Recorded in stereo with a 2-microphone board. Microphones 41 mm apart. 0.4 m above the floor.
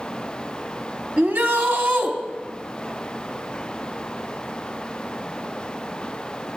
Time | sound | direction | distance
1.2 | a shout | 50° right (ahead or behind) | 2 m